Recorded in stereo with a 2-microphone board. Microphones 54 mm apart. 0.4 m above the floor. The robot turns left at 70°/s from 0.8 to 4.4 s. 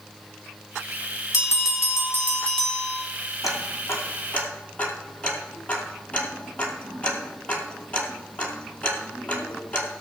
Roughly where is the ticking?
Left.